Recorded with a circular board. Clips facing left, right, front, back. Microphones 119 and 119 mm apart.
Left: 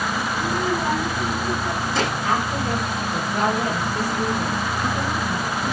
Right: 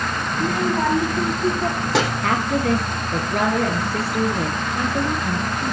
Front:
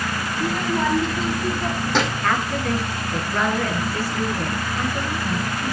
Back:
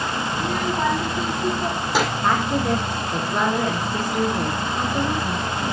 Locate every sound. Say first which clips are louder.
0.3 s a child speaking: right 4 dB, front 2 dB; 90° right, 10 m; by 2.1 s 95° right, 10 m
2.2 s a woman speaking: right 3 dB, back 2 dB; 110° right, 4 m